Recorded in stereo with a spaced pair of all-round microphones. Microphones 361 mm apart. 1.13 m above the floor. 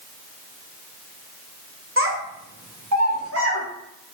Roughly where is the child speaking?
Right.